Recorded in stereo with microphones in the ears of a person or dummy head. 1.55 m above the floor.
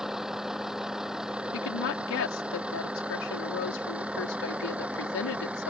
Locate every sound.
0.0 s a vehicle: 10° right (ahead or behind)
1.5 s a woman speaking: 85° left